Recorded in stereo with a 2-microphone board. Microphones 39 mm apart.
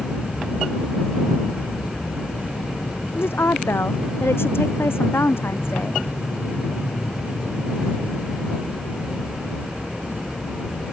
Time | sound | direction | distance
0.0 | an aircraft | 60° left (ahead or behind) | ?
3.1 | a woman speaking | 85° left | ?